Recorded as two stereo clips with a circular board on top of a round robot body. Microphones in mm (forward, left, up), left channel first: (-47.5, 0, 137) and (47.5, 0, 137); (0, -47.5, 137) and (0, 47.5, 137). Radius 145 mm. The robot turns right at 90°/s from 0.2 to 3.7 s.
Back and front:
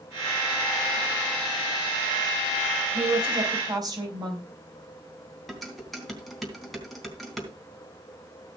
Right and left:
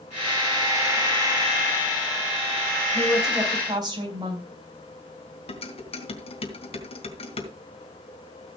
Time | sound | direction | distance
2.9 | a woman speaking | 20° right | 5.5 m
5.5 | dishes clattering | 90° right | 3.5 m